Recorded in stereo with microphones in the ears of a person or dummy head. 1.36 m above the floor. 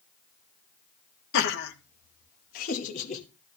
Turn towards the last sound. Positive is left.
turn(degrees=45)  # may be behind; listen again after turning